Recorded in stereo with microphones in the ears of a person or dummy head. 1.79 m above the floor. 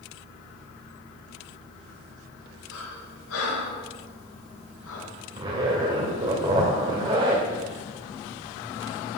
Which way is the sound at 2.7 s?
80° left.